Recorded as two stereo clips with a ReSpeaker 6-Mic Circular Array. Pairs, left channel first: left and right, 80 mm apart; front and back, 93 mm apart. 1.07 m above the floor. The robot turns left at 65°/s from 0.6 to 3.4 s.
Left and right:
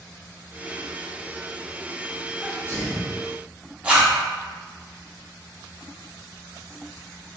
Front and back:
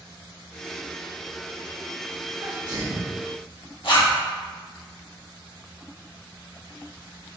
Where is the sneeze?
165° left, 0.9 m; by 3.1 s 115° left, 0.9 m.